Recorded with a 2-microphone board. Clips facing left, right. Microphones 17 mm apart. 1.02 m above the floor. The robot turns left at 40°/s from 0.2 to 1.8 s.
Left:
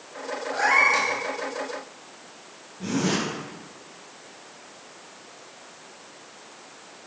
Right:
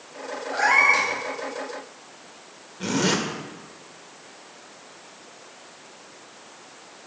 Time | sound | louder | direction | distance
0.5 | a cat meowing | right 2 dB | 10° right (ahead or behind) | 0.8 m
2.8 | a zipper | right 2 dB | 75° right (ahead or behind) | 1.0 m